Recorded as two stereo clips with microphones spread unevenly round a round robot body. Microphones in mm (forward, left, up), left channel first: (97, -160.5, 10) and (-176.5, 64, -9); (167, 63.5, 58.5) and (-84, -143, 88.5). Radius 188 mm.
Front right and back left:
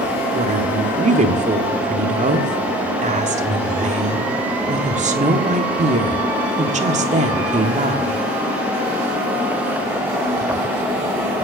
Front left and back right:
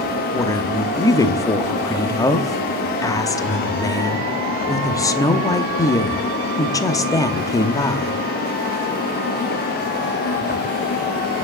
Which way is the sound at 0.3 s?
100° left.